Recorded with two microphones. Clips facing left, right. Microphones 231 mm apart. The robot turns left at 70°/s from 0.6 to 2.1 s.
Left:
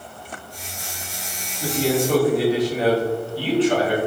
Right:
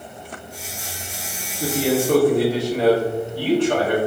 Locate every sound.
1.6 s a man speaking: 95° right, 1.8 m; by 4.0 s 130° right, 1.8 m